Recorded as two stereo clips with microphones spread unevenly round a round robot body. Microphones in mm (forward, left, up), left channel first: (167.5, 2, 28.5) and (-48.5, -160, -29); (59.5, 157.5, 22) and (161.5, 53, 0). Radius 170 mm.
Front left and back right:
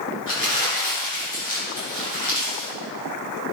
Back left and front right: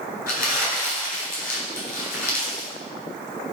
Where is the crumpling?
120° left, 3.5 m.